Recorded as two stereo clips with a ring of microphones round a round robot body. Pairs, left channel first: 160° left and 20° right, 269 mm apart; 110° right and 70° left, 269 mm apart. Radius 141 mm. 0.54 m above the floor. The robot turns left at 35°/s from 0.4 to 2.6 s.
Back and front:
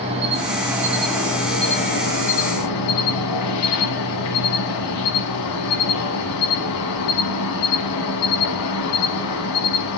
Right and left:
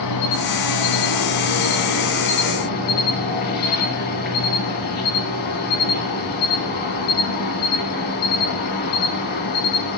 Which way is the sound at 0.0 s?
90° right.